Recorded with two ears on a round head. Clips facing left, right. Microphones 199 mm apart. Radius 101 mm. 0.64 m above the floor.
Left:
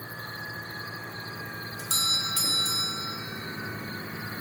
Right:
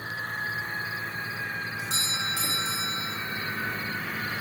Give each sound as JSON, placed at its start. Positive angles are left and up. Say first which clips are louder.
{"t": 1.8, "sound": "a doorbell", "louder": "right 1 dB", "side_deg": 30, "distance_m": 1.6}